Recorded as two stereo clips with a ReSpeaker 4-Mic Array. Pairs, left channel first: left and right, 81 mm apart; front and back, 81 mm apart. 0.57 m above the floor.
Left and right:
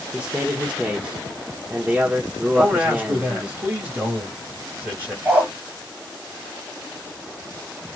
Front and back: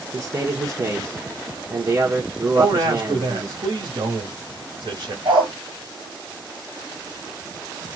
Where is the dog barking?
155° right, 4.5 m.